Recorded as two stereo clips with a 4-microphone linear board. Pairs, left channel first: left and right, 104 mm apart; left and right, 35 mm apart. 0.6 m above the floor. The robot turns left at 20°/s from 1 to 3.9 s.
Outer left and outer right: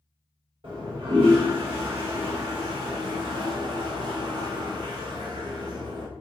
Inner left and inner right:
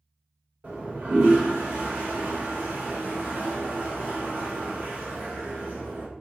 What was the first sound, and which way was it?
A toilet flushing, 70° right.